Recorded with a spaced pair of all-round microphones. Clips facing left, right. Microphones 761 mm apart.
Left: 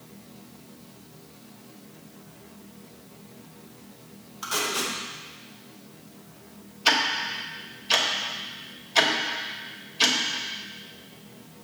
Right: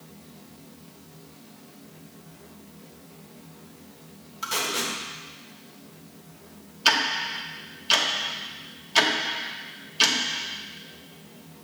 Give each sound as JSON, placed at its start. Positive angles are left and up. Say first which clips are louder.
{"t": 4.4, "sound": "tape being pulled", "louder": "left 1 dB", "side_deg": -20, "distance_m": 1.5}
{"t": 6.8, "sound": "ticking", "louder": "left 1 dB", "side_deg": -45, "distance_m": 1.0}